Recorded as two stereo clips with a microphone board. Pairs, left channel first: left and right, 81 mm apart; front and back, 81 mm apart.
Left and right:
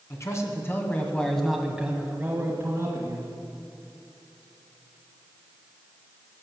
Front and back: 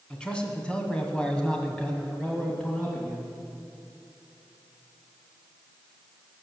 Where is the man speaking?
70° left, 2.0 m; by 3.3 s 85° right, 2 m.